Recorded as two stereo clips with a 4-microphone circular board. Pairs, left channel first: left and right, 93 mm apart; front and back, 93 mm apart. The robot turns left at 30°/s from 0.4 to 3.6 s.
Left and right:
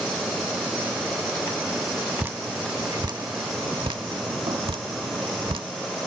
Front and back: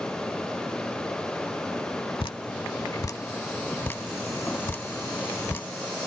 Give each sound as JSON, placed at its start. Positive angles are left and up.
{"t": 2.2, "sound": "dripping", "azimuth_deg": -25}